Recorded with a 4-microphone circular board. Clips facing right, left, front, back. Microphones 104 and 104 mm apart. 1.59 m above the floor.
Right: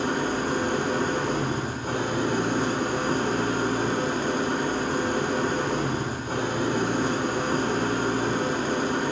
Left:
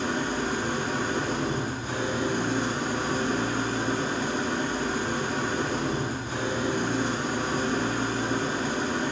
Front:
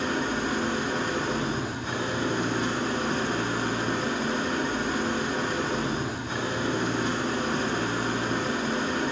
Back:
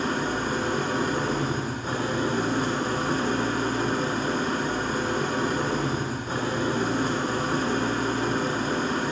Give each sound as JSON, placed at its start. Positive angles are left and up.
{"t": 0.0, "sound": "an engine running", "azimuth_deg": -130, "distance_m": 0.8}